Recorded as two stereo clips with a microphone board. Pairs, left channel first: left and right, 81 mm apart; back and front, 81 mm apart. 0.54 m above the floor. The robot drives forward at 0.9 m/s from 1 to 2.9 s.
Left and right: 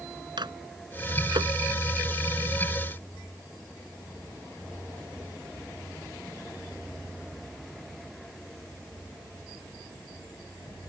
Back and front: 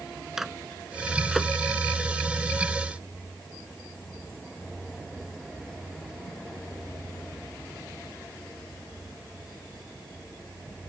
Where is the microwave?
85° right; by 1.5 s 90° right.